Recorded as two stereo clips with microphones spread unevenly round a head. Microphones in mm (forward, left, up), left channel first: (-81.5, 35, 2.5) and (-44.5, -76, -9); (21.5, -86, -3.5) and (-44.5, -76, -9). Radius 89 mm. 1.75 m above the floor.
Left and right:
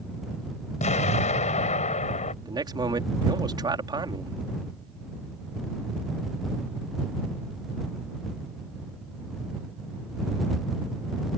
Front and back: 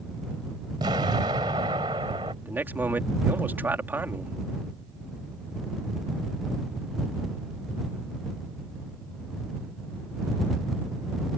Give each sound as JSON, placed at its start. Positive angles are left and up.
{"t": 0.8, "sound": "an explosion", "azimuth_deg": 120}
{"t": 2.4, "sound": "a man speaking", "azimuth_deg": -125}